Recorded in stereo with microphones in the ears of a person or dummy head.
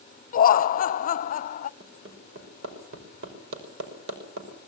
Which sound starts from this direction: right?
Hammering, at 1.8 s.